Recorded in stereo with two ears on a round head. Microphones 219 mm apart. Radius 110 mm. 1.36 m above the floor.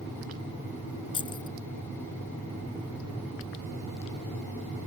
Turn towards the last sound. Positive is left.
turn(degrees=20)  # may be behind; listen again after turning